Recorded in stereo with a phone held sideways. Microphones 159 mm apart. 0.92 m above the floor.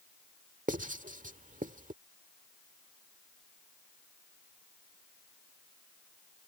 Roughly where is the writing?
Right.